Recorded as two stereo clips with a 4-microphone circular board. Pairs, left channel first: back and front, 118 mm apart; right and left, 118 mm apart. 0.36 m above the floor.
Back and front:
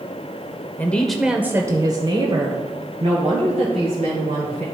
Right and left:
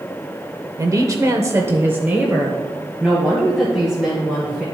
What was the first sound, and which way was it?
A woman speaking, 120° left.